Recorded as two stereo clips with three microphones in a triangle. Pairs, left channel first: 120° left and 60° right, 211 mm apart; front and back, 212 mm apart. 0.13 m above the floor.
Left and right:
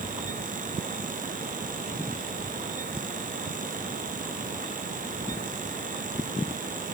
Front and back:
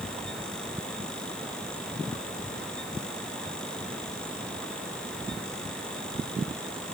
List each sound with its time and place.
Only background noise.